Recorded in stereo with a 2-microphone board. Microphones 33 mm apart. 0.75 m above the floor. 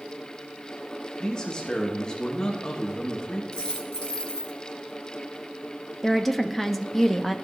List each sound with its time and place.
1.2 s a man speaking: 20° left (ahead or behind), 1.0 m
3.5 s a dropped coin: 20° left (ahead or behind), 2.5 m
6.0 s a woman speaking: centre (ahead or behind), 0.6 m